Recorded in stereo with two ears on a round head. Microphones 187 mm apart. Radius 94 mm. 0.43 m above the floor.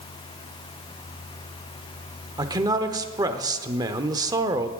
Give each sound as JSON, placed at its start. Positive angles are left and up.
{"t": 2.4, "sound": "a man speaking", "side_deg": -20, "distance_m": 0.8}